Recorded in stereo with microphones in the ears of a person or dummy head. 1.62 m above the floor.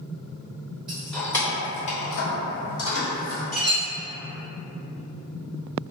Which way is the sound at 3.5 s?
Centre (ahead or behind).